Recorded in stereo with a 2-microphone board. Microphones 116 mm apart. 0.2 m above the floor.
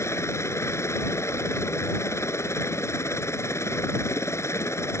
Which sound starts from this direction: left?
A helicopter, at 0.0 s.